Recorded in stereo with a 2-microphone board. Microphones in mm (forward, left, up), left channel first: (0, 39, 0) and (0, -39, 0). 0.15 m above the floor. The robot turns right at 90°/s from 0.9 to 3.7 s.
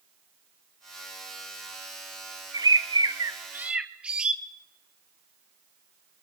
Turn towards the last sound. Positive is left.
turn(degrees=-15)